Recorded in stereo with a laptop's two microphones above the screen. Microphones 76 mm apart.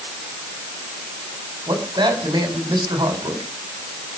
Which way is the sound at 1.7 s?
80° right.